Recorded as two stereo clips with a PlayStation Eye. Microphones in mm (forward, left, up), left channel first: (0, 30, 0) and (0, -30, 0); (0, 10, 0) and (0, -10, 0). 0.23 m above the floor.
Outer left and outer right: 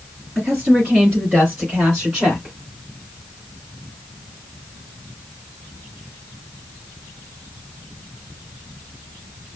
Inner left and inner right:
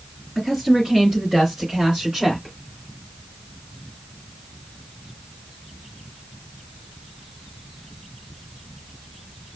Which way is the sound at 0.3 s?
30° right (ahead or behind).